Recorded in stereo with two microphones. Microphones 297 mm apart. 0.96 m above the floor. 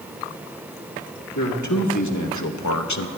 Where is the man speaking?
75° left (ahead or behind), 1.6 m; by 3.1 s 65° left (ahead or behind), 0.6 m.